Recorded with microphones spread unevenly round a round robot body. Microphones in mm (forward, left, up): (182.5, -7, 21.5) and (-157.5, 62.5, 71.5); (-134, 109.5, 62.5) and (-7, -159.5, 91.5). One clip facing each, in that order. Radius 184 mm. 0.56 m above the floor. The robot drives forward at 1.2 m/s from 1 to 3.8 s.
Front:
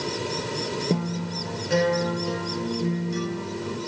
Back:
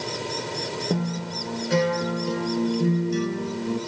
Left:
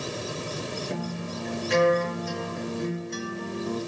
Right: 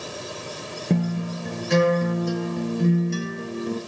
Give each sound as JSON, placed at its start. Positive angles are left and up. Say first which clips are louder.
{"t": 0.9, "sound": "a guitar", "louder": "back 1 dB, right 7 dB", "azimuth_deg": -95, "distance_m": 5.5}